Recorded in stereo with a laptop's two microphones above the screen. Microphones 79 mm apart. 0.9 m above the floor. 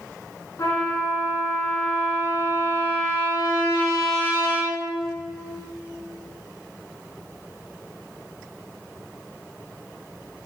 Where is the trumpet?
35° left (ahead or behind), 2 m.